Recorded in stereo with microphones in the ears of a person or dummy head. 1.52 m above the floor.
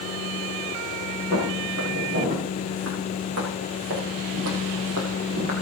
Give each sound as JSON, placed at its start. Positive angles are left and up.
{"t": 1.3, "sound": "footsteps", "side_deg": -70, "distance_m": 7.0}